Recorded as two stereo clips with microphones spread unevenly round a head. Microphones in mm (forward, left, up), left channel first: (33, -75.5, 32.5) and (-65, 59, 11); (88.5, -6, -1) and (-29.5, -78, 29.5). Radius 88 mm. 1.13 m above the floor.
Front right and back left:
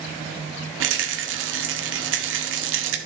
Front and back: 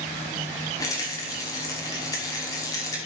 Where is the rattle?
105° left, 1.2 m.